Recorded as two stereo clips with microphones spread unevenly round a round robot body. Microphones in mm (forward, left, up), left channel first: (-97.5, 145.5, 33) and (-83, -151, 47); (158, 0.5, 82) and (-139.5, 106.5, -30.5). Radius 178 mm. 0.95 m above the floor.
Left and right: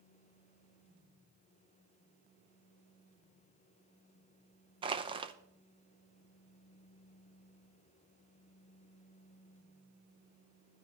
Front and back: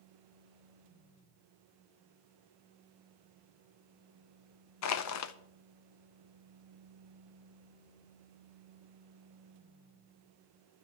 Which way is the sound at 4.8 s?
30° right.